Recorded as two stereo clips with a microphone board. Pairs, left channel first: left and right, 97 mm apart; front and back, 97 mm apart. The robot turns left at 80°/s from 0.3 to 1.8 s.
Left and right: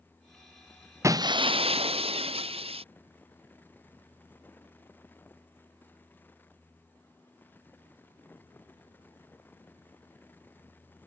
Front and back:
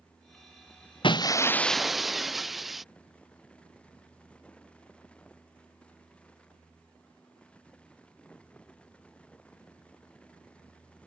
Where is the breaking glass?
30° right; by 2.8 s 90° right.